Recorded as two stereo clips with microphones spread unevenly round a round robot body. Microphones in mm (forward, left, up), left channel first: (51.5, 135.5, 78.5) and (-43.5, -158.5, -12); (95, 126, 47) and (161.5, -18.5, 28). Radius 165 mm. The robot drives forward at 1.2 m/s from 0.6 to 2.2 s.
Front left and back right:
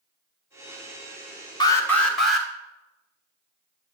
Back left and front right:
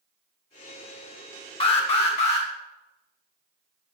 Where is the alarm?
160° left, 1.0 m; by 2.5 s 170° left, 1.5 m.